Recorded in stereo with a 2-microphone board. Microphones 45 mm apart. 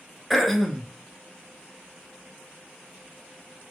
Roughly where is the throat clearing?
Centre.